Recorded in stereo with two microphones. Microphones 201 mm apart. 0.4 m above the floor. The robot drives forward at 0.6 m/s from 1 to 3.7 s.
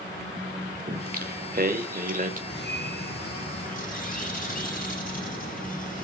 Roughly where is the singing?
Right.